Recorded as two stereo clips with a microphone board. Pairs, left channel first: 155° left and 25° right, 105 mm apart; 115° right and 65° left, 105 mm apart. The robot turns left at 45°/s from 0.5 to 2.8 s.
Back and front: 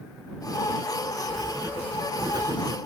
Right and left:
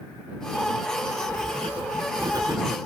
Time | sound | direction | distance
1.3 | writing | 70° left | ?